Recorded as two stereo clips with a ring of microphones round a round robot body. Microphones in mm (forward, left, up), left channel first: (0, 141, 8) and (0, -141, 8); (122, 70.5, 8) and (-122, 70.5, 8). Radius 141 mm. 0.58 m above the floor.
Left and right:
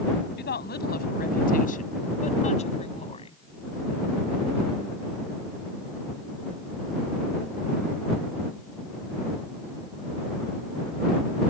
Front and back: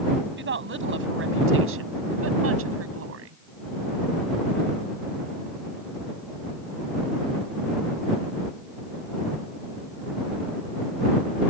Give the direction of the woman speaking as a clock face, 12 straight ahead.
7 o'clock.